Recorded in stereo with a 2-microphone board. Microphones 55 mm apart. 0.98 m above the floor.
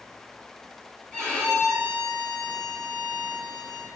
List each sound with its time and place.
1.1 s a violin: 15° left (ahead or behind), 3 m